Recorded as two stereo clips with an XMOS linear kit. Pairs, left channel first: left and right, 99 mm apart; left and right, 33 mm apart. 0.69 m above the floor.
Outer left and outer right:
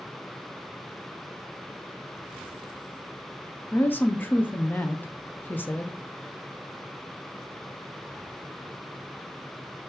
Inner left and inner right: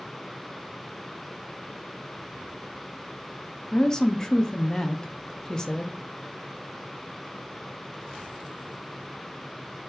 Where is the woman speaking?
20° left (ahead or behind), 0.6 m.